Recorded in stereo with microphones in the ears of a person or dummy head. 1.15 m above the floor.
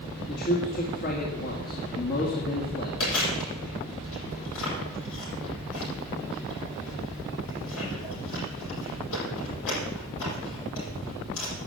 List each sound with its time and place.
0.3 s a man speaking: 55° left (ahead or behind), 2 m
3.0 s chewing: 80° left, 8 m